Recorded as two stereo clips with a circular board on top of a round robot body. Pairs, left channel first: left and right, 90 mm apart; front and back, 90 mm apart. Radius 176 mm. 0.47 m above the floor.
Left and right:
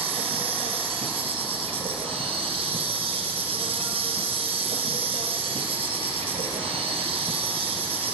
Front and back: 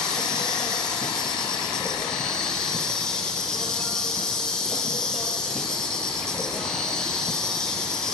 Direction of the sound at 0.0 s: 85° right.